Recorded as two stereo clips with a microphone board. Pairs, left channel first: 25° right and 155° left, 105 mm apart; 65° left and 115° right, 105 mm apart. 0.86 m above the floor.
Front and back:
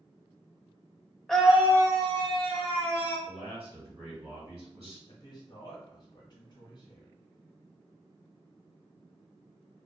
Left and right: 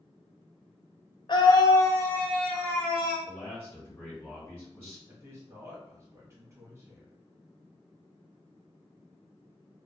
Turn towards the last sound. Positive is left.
turn(degrees=-55)